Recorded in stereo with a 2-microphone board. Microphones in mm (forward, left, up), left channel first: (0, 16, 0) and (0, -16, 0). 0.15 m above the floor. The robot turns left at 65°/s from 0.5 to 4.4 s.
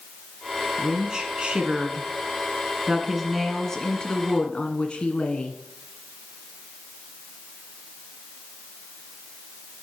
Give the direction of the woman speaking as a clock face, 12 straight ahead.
12 o'clock.